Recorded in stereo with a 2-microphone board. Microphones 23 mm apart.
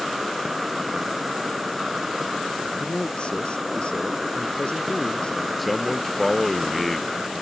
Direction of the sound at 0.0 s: 10° right (ahead or behind).